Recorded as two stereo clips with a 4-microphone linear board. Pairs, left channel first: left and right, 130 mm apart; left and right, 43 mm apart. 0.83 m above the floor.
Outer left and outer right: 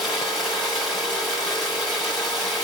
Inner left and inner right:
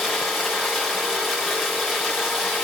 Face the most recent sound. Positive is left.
turn(degrees=0)  # may be behind; listen again after turning